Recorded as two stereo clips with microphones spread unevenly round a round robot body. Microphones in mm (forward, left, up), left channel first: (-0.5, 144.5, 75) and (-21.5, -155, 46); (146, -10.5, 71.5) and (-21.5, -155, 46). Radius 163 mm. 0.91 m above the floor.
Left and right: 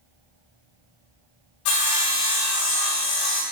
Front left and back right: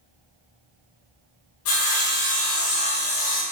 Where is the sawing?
85° left, 1.8 m.